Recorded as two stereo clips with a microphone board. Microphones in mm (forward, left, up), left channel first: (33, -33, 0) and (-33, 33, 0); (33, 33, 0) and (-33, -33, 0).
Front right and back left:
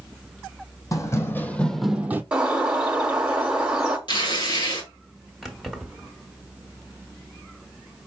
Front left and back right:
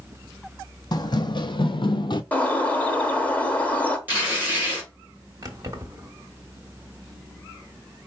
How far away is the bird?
About 0.9 m.